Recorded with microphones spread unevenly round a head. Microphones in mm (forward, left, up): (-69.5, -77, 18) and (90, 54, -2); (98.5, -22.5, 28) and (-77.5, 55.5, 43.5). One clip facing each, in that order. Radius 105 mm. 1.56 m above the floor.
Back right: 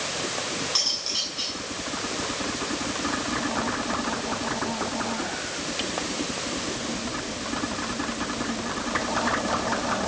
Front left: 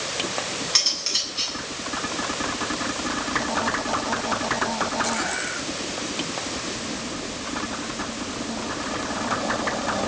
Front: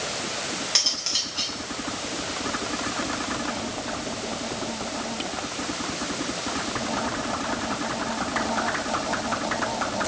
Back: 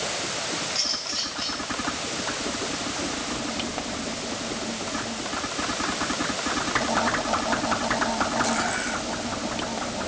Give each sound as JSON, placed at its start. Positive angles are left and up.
{"t": 0.8, "sound": "cutlery clinking", "azimuth_deg": -20, "distance_m": 8.0}